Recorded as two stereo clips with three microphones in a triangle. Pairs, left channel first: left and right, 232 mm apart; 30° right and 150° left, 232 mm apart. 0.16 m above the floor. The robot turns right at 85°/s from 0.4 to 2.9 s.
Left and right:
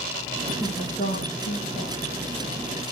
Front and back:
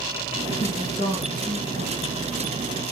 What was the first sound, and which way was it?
A woman speaking, 5° right.